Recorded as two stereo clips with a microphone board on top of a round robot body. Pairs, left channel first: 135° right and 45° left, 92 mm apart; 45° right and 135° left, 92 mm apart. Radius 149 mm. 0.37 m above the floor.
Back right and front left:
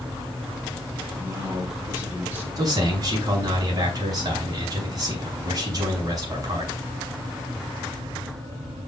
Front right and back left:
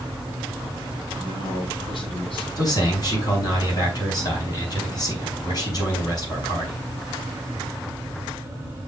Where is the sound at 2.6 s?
Straight ahead, 5.5 m.